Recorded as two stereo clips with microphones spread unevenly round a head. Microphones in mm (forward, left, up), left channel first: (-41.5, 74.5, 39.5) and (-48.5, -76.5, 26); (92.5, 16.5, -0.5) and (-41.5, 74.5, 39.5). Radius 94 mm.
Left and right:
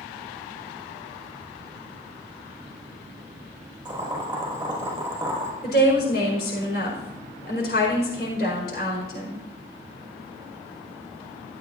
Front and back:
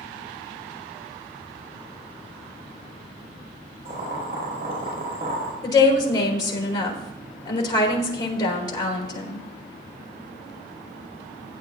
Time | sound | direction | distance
3.9 | boiling | 160° right | 5 m
5.6 | a woman speaking | 40° left | 4.5 m